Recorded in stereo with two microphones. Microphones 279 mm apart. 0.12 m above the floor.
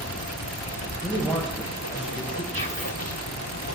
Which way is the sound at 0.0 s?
65° left (ahead or behind).